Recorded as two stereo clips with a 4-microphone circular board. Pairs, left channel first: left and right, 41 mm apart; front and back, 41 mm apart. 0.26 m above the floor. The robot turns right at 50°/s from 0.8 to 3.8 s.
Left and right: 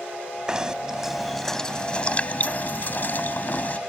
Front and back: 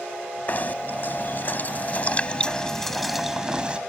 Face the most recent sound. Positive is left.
turn(degrees=125)